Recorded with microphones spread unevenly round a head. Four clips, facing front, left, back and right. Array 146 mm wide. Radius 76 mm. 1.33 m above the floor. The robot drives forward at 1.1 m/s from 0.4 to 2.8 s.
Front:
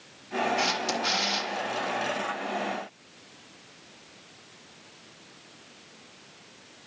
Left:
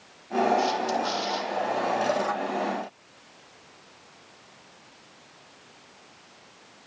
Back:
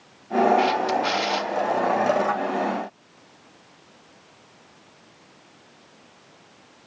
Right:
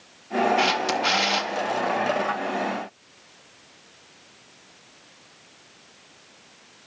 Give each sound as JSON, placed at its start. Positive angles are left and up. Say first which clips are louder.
{"t": 0.6, "sound": "a camera shutter", "louder": "right 2 dB, back 8 dB", "azimuth_deg": -75, "distance_m": 2.5}